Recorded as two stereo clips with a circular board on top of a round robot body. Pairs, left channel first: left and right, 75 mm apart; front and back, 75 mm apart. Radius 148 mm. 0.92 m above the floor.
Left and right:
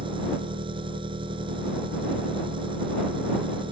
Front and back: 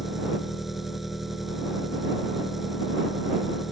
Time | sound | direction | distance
0.0 | an engine running | 95° right | ?